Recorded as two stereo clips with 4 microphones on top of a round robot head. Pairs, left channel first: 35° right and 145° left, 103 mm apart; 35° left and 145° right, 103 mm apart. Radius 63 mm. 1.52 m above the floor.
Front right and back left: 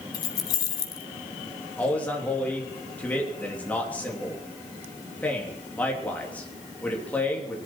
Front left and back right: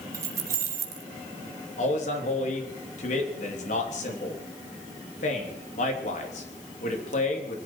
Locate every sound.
0.1 s keys jangling: 85° right, 1.0 m
1.8 s a man speaking: 40° left, 3 m